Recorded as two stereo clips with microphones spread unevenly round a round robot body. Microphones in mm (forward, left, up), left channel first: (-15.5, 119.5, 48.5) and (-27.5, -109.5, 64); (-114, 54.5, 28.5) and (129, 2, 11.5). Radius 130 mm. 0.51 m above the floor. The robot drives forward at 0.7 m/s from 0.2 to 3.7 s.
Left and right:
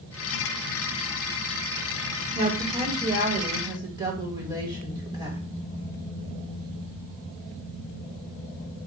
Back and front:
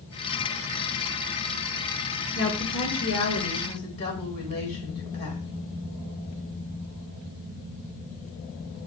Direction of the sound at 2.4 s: 150° right.